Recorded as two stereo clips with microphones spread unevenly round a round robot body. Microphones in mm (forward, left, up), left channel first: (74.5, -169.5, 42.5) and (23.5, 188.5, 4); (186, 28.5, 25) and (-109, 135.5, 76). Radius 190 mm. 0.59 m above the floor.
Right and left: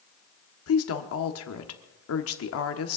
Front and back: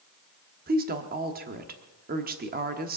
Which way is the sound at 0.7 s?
135° right.